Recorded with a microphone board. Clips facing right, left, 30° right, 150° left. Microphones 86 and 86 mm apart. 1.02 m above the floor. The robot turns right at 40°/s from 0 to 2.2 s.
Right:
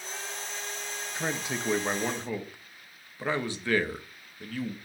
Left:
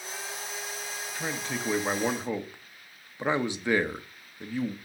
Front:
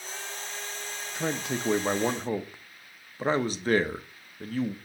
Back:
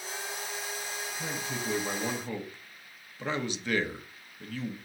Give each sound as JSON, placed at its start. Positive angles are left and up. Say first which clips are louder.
{"t": 1.1, "sound": "a man speaking", "louder": "right 1 dB, front 8 dB", "azimuth_deg": -20, "distance_m": 0.8}